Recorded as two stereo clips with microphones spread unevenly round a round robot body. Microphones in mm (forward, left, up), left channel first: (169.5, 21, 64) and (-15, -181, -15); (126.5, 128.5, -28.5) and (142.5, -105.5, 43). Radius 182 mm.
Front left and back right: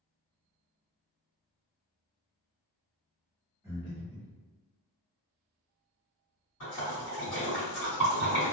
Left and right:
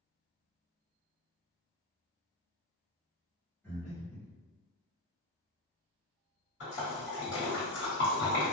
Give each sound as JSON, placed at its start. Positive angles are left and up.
{"t": 3.6, "sound": "breathing", "azimuth_deg": 160, "distance_m": 0.7}
{"t": 6.6, "sound": "a splash", "azimuth_deg": 100, "distance_m": 1.6}